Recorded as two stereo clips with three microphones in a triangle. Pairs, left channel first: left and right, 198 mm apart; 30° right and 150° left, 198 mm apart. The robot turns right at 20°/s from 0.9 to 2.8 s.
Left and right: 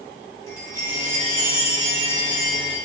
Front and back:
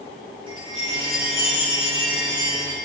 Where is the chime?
135° left, 1.0 m; by 2.8 s 170° left, 1.0 m.